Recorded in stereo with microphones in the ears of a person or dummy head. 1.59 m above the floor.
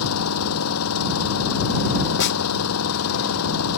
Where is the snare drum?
60° left (ahead or behind).